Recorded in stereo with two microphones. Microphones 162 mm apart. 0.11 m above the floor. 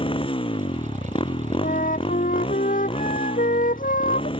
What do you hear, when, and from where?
0.0 s a motorcycle: 35° left (ahead or behind)
1.6 s a flute: 60° left (ahead or behind)